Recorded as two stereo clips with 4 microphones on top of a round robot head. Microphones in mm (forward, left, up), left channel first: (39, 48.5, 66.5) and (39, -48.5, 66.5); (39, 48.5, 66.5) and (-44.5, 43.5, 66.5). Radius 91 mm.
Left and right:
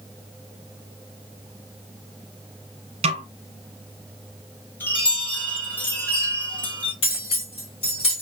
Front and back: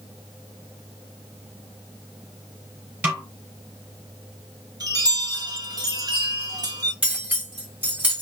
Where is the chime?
155° left, 1.9 m.